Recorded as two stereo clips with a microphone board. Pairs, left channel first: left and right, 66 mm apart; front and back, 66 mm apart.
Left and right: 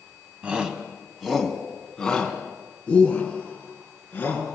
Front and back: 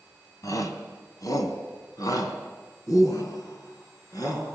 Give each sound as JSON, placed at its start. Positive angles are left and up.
{"t": 0.4, "sound": "a shout", "azimuth_deg": -20, "distance_m": 3.0}